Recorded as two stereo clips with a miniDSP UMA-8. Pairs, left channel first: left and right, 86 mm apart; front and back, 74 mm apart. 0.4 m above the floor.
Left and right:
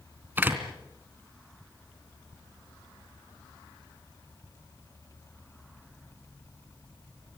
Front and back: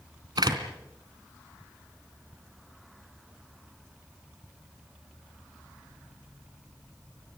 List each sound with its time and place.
0.4 s a door slam: 160° right, 2.5 m